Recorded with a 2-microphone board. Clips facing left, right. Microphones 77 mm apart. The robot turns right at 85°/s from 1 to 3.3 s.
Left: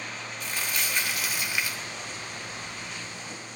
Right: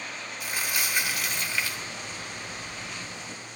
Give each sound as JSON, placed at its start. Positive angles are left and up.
{"t": 0.4, "sound": "crumpling", "azimuth_deg": -20, "distance_m": 1.2}